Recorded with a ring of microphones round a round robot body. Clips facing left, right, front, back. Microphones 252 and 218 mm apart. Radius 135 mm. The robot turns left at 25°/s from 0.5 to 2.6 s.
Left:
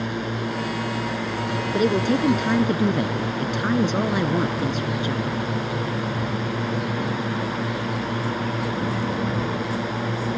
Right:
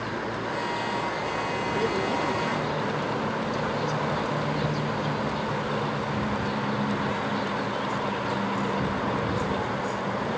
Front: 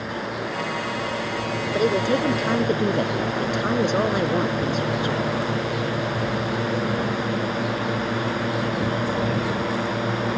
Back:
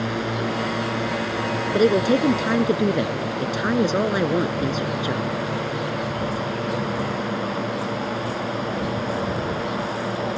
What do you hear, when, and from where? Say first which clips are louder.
0.0 s a drone: left 5 dB, back 4 dB; 130° left; by 10.4 s 70° left
1.7 s a woman speaking: left 8 dB, back 4 dB; 130° left; by 5.4 s 105° left